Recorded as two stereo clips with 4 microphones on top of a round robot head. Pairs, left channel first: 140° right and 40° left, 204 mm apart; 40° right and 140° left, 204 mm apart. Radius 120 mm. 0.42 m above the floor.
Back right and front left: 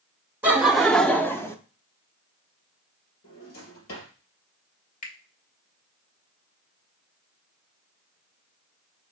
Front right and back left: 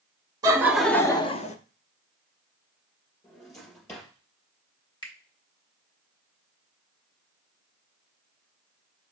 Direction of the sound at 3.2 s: 120° right.